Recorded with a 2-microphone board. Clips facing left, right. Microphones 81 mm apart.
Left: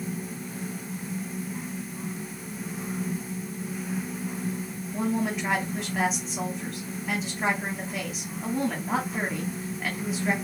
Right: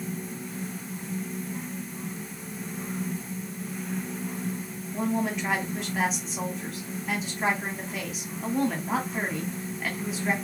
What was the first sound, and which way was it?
A woman speaking, centre (ahead or behind).